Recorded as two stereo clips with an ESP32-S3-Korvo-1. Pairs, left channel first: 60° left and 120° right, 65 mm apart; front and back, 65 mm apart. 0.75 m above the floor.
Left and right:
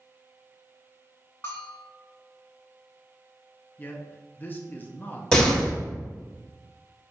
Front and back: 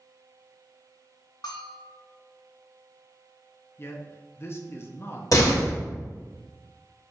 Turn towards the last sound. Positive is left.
turn(degrees=-15)